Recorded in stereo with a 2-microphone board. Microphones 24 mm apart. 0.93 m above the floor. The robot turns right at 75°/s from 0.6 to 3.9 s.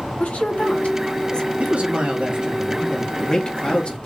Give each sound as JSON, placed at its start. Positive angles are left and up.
{"t": 0.2, "sound": "a woman speaking", "side_deg": 70, "distance_m": 1.5}
{"t": 1.6, "sound": "a man speaking", "azimuth_deg": -90, "distance_m": 1.6}